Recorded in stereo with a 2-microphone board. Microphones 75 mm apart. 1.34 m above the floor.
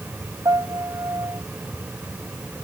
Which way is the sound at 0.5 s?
50° right (ahead or behind).